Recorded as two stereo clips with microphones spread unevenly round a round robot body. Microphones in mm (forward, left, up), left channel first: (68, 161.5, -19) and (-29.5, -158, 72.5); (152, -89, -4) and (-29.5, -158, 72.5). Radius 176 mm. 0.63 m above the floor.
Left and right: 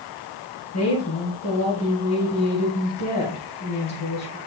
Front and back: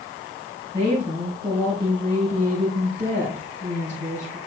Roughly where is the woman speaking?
Left.